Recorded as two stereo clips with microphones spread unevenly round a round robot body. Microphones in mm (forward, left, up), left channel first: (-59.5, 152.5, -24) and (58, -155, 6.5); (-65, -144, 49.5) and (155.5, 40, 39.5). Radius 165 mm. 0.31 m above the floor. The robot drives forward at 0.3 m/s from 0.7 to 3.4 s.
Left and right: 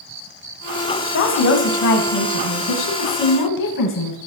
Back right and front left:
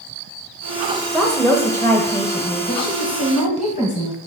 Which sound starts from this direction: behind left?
A woman speaking, at 1.1 s.